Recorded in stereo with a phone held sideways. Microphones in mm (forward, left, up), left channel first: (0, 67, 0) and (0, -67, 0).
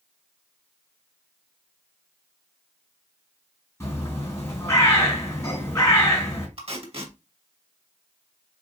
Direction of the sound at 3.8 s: 20° left (ahead or behind).